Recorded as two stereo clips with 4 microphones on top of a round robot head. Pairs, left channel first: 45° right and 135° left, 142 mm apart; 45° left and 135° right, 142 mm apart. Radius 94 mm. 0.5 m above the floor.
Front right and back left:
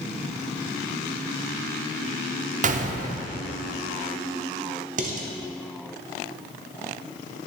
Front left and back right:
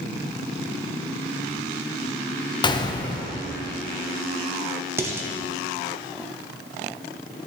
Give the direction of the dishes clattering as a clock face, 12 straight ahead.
7 o'clock.